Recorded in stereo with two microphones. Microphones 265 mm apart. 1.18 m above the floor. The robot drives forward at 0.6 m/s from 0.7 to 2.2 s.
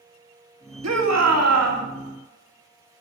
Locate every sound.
0.8 s a shout: 85° right, 2 m; by 1.9 s 70° right (ahead or behind), 2 m